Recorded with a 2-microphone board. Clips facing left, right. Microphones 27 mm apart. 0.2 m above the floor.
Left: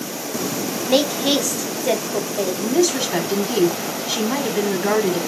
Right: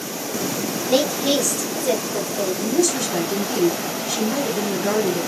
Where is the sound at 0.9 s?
20° left (ahead or behind), 1.0 m.